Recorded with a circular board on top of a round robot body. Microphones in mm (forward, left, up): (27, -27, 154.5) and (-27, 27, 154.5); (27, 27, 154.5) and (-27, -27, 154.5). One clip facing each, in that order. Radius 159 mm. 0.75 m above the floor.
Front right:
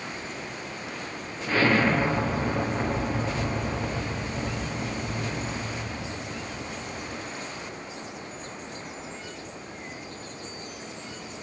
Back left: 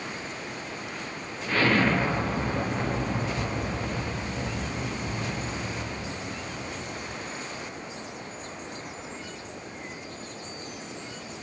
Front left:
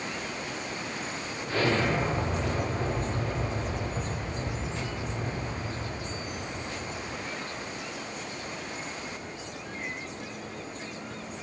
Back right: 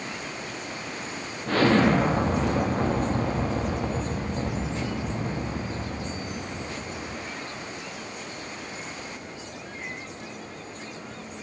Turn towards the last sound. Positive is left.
turn(degrees=-130)